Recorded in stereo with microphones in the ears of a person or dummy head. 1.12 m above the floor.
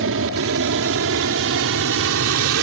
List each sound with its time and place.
0.0 s an aircraft: 65° right (ahead or behind)